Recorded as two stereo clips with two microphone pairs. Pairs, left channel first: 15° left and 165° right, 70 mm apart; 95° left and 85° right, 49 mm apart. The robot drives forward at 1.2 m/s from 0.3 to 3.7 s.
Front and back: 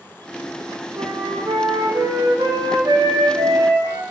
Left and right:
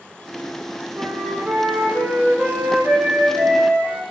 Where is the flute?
135° right, 6 m; by 4.0 s 150° right, 8.5 m.